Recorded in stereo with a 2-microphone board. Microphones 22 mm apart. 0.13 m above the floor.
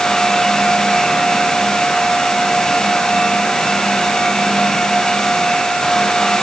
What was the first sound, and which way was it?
Only background noise.